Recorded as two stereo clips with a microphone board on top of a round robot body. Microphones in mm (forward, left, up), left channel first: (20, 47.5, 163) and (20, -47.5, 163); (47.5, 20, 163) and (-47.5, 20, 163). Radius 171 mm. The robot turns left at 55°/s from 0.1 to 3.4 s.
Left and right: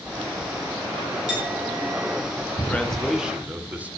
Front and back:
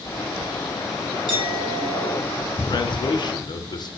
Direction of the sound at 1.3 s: 165° right.